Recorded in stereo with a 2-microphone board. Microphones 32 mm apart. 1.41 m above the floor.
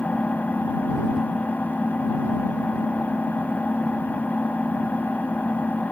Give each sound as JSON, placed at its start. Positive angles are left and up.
{"t": 0.0, "sound": "an engine running", "side_deg": 75}